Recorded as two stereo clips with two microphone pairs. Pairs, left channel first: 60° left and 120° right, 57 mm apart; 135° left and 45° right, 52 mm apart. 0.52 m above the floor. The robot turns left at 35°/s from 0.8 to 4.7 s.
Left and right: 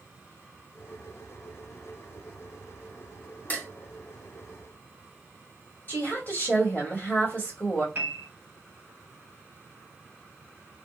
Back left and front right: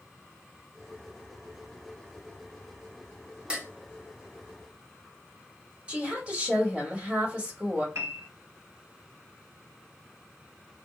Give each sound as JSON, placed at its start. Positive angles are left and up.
{"t": 3.5, "sound": "dishes clattering", "azimuth_deg": 15, "distance_m": 0.6}
{"t": 5.9, "sound": "a woman speaking", "azimuth_deg": 15, "distance_m": 1.6}
{"t": 8.0, "sound": "a piano", "azimuth_deg": -65, "distance_m": 0.8}